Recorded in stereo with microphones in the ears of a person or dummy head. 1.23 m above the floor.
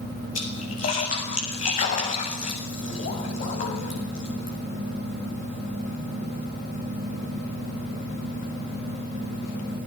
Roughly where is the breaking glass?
No breaking glass in this recording.